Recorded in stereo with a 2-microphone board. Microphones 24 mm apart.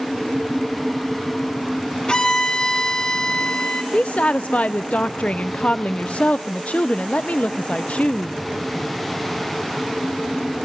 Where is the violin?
35° left (ahead or behind), 1.8 m.